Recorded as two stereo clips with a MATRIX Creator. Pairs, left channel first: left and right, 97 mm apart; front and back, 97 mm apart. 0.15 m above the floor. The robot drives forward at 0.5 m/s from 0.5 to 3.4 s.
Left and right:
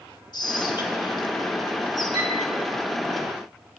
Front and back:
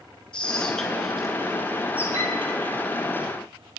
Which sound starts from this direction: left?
Whispering, at 0.3 s.